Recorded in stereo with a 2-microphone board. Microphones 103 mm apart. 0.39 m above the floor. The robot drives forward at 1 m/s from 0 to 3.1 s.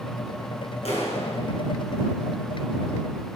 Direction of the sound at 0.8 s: 75° left (ahead or behind).